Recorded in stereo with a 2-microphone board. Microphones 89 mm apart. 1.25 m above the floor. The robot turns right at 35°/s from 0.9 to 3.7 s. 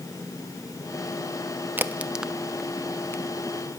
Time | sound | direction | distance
1.8 | a crack | 25° right (ahead or behind) | 0.6 m